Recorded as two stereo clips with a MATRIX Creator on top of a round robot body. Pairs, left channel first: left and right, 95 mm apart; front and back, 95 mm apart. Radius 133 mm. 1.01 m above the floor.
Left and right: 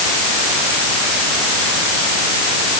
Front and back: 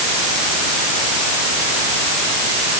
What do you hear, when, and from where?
Only background noise.